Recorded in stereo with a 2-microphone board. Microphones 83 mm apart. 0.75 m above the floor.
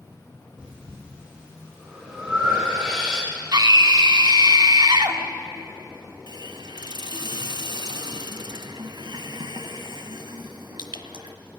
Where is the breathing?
10° right (ahead or behind), 9.5 m.